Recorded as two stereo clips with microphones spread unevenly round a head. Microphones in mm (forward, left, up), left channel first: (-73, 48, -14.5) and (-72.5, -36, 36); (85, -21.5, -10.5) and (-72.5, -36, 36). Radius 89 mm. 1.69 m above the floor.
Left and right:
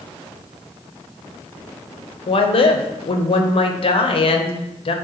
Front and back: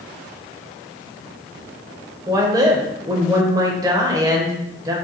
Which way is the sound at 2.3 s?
120° left.